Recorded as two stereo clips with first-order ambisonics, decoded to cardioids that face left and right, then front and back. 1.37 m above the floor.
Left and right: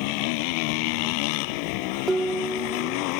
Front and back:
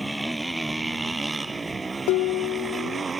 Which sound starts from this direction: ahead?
Dishes clattering, at 2.1 s.